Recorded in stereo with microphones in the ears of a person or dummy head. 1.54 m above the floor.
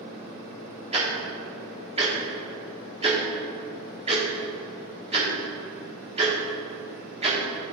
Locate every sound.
0.9 s ticking: 25° right (ahead or behind), 1.6 m